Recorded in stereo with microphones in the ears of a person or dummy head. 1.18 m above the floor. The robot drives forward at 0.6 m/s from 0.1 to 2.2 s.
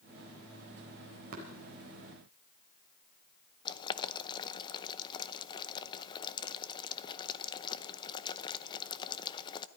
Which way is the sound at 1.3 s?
50° right (ahead or behind).